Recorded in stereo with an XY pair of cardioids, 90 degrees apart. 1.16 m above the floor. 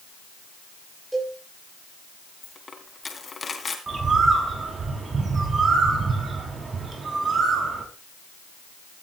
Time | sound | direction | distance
1.1 | a cowbell | 5° right | 9.5 m
2.4 | a dropped coin | 40° left | 3 m
3.9 | a bird | 40° right | 6 m